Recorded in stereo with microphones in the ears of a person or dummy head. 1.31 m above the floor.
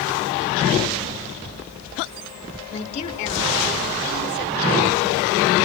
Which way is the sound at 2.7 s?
35° left (ahead or behind).